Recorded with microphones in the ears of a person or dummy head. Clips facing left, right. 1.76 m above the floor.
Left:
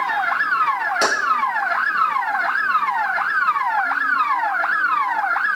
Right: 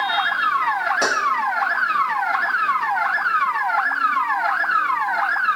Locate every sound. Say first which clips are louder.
1.0 s keys jangling: left 3 dB; 10° left (ahead or behind), 1.0 m